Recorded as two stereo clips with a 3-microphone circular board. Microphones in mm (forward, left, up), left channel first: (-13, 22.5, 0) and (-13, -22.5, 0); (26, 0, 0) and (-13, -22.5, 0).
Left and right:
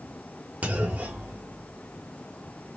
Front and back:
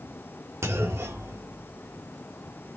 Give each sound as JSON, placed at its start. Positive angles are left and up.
{"t": 0.6, "sound": "a clunk", "azimuth_deg": -150, "distance_m": 1.3}